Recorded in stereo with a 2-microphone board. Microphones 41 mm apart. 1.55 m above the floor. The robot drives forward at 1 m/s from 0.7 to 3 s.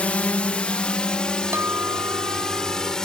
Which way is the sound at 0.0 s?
35° left (ahead or behind).